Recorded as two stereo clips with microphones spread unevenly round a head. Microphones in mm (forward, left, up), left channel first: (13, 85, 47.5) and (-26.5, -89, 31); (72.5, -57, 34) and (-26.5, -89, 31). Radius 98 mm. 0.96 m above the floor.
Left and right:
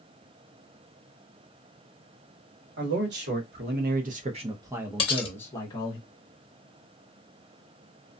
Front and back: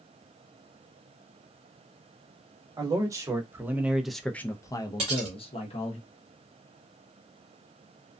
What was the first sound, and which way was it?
A man speaking, 110° right.